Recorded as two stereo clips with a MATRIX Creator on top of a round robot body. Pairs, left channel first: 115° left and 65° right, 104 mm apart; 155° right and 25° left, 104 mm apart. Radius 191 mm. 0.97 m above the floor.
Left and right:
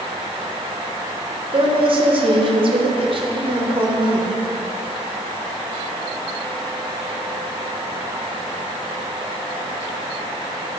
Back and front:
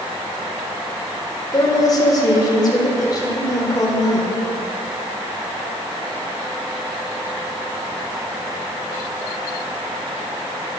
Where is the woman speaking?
105° right, 1.6 m.